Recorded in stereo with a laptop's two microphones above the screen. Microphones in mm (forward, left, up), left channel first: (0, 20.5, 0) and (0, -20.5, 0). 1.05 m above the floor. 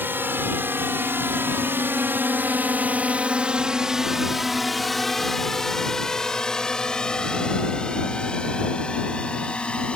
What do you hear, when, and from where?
0.0 s a drone: 55° right (ahead or behind); by 10.0 s 25° left (ahead or behind)